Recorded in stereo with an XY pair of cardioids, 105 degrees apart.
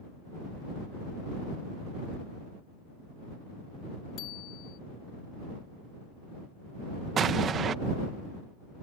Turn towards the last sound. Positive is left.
turn(degrees=-55)